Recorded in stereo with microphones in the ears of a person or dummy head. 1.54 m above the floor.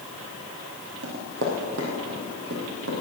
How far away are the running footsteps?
About 3 m.